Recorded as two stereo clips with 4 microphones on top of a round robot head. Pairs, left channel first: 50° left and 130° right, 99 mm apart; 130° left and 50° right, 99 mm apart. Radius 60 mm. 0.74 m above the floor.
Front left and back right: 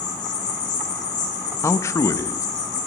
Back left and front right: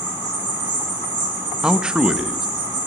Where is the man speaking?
25° left, 1.1 m.